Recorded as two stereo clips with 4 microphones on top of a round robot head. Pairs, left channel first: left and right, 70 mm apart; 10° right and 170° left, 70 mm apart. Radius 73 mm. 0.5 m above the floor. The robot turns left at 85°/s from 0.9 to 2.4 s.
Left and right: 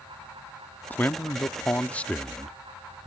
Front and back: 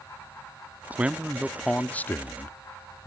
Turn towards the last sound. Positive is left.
turn(degrees=0)